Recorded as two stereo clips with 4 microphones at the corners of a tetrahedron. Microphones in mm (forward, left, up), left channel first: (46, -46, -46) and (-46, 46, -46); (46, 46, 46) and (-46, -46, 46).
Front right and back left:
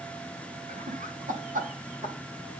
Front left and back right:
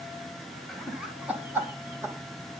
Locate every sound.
0.7 s laughter: 130° left, 1.6 m; by 2.1 s 155° left, 3 m